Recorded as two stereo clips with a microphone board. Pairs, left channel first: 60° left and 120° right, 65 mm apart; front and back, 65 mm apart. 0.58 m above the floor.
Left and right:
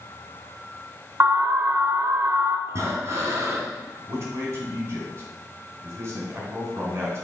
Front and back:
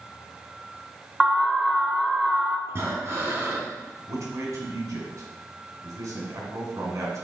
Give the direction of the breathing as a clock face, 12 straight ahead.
5 o'clock.